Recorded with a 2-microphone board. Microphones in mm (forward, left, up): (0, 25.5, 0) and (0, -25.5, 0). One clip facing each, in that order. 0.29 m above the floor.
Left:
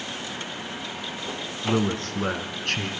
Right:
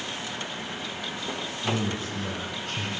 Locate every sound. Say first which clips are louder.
1.6 s a man speaking: left 5 dB; 55° left (ahead or behind), 2.5 m; by 2.9 s 75° left (ahead or behind), 3 m